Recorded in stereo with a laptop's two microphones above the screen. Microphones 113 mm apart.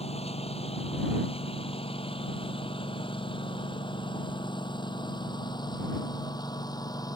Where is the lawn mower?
65° left (ahead or behind); by 7.2 s 35° left (ahead or behind).